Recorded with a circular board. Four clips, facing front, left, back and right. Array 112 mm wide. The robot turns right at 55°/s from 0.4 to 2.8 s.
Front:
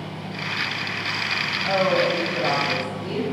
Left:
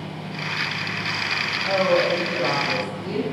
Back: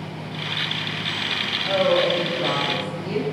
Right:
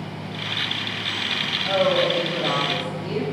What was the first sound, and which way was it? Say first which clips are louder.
A woman speaking: even, back 1 dB; 65° left.